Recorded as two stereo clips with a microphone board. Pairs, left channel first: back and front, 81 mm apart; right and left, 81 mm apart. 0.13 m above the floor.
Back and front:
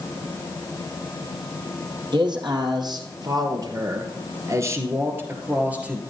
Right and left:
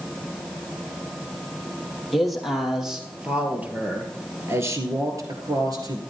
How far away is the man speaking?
About 3 m.